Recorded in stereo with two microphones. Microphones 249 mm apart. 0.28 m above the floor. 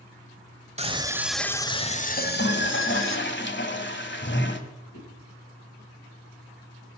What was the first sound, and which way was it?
A scream, 25° right (ahead or behind).